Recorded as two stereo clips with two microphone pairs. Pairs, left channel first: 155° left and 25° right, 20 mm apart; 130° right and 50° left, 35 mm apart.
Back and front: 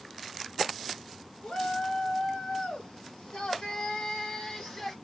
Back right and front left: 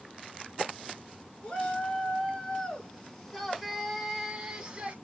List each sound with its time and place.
1.4 s a shout: 175° left, 3.5 m; by 5.0 s 95° left, 2 m